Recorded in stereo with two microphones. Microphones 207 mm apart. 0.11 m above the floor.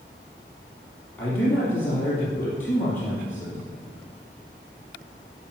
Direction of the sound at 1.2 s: 10° left (ahead or behind).